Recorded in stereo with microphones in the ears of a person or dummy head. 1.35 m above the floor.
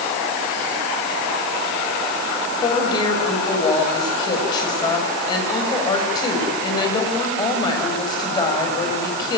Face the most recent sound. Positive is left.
turn(degrees=30)  # may be behind; listen again after turning